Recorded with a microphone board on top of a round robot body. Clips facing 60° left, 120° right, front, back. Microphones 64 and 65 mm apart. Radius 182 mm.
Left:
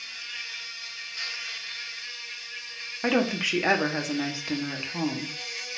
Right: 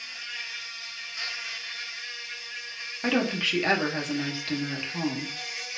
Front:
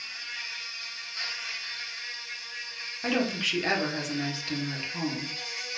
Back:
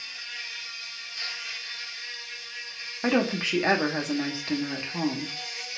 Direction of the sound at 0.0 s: 40° right.